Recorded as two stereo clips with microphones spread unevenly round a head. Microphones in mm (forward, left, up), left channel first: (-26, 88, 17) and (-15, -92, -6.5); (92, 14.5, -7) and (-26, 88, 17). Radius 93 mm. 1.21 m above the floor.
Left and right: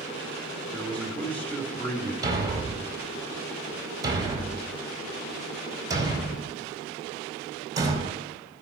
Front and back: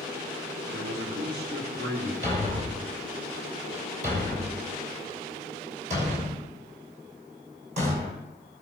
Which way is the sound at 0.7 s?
175° left.